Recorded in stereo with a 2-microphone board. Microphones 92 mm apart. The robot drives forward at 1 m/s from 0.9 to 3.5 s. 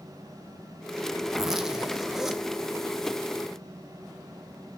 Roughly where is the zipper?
Centre.